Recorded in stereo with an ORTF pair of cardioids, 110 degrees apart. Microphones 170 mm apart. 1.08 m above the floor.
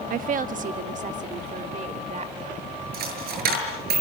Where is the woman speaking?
55° right, 1.2 m; by 2.8 s 40° right, 3.5 m.